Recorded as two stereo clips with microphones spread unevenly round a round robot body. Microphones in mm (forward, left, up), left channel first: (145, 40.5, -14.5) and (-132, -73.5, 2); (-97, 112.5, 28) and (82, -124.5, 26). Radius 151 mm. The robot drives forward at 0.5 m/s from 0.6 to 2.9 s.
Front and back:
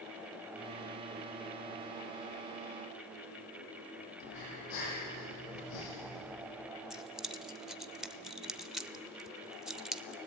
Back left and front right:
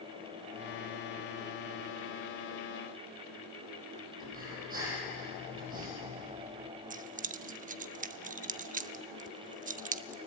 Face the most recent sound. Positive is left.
turn(degrees=-65)